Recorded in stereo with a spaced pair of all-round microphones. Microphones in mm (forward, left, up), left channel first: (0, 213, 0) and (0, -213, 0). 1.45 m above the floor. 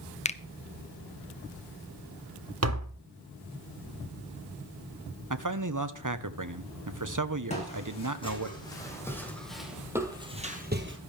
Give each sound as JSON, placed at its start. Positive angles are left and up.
{"t": 0.2, "sound": "a finger snap", "side_deg": 15, "distance_m": 0.6}
{"t": 2.6, "sound": "tapping", "side_deg": -35, "distance_m": 1.2}
{"t": 5.3, "sound": "a man speaking", "side_deg": -45, "distance_m": 1.1}
{"t": 7.5, "sound": "footsteps", "side_deg": 15, "distance_m": 5.5}